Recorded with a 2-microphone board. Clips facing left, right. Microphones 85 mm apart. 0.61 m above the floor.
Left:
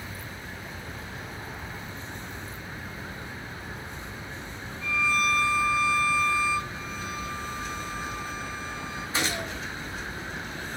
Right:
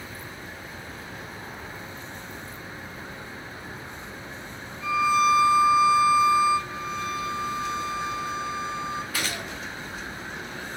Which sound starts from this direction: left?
A gunshot, at 9.1 s.